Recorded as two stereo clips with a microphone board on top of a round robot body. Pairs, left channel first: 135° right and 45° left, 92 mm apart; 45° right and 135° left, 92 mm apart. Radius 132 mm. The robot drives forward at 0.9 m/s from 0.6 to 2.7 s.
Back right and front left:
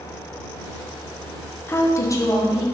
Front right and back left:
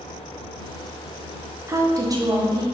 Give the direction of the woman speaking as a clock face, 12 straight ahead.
6 o'clock.